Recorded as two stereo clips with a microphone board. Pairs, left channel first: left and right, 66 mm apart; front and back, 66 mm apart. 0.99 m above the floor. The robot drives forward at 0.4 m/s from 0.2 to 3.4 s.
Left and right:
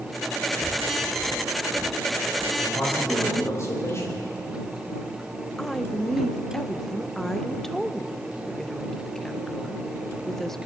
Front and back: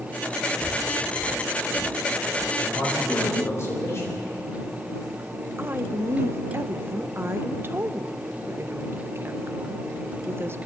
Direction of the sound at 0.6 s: 40° right.